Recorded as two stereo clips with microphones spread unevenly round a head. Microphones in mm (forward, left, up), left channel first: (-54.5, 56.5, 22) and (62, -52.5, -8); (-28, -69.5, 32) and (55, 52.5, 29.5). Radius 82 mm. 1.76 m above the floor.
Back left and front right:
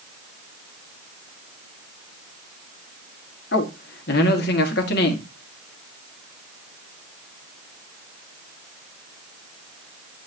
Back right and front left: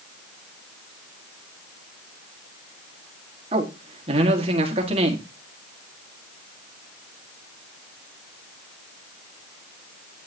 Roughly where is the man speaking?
Left.